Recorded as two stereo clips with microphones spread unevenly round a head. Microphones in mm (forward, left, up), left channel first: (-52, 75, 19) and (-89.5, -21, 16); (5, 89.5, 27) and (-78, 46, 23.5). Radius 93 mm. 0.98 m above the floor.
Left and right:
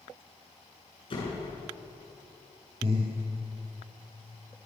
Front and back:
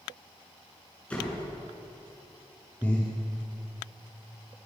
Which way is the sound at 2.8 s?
55° right.